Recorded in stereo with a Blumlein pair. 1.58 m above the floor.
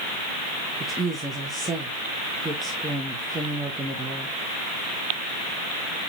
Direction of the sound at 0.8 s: 10° right.